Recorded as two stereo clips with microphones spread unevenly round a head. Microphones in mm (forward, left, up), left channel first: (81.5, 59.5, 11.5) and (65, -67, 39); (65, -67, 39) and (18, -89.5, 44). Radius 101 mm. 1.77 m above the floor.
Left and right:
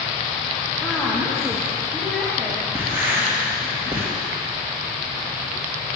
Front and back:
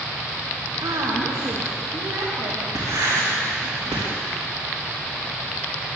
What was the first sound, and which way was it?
A woman speaking, 175° left.